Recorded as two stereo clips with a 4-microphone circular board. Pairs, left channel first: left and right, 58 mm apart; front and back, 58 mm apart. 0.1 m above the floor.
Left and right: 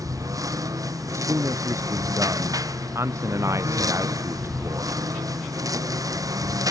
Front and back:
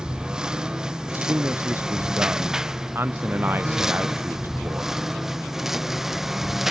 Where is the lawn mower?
100° right; by 6.7 s 95° right.